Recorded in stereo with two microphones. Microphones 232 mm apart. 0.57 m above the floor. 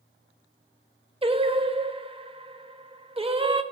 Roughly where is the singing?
Right.